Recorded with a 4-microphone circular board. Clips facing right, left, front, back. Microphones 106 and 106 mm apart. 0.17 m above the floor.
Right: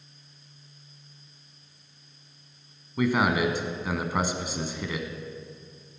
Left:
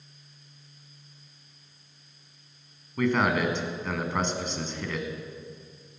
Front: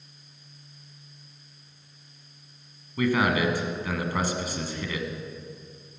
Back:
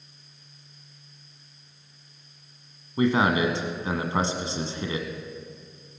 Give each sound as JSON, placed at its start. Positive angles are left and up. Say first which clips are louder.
{"t": 3.0, "sound": "a man speaking", "louder": "right 1 dB, back 2 dB", "azimuth_deg": -160, "distance_m": 1.4}